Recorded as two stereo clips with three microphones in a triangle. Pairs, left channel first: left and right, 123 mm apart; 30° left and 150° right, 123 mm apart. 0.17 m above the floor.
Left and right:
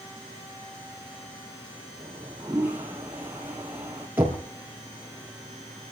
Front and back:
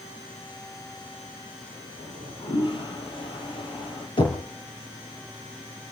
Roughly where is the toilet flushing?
Ahead.